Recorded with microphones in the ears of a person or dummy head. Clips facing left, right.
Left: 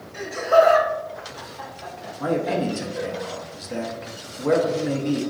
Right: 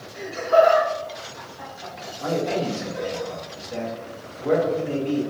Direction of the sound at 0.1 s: 70° left (ahead or behind).